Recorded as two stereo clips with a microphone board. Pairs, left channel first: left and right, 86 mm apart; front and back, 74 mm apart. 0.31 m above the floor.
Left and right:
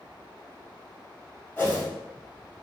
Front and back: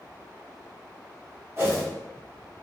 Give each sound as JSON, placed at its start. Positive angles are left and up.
{"t": 1.6, "sound": "a whoosh", "azimuth_deg": 145, "distance_m": 1.2}